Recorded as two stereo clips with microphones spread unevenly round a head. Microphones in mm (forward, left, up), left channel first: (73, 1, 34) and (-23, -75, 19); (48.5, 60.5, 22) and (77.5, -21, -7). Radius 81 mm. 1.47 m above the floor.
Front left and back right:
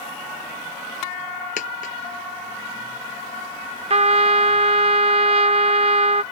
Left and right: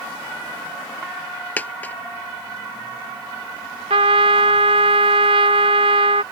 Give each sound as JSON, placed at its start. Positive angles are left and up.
{"t": 1.6, "sound": "a dropped coin", "azimuth_deg": 50}
{"t": 3.9, "sound": "a trumpet", "azimuth_deg": -110}